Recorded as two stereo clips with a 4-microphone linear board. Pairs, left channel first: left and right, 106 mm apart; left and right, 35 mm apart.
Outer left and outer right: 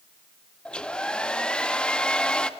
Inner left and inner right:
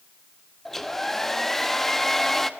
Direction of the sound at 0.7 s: 10° left (ahead or behind).